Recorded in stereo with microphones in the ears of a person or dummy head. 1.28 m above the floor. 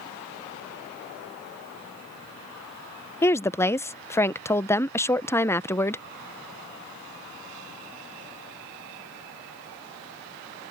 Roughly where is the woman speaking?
Centre.